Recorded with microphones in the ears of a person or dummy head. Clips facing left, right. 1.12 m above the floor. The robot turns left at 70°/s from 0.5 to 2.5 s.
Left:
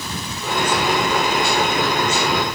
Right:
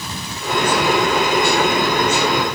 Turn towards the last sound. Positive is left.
No sound to turn to.